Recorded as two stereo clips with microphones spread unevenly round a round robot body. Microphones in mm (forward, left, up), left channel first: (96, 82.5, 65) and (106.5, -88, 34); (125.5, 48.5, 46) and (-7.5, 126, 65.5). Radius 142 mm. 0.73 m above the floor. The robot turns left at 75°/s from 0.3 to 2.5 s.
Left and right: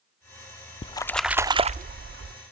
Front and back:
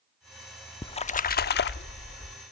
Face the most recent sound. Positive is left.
turn(degrees=-90)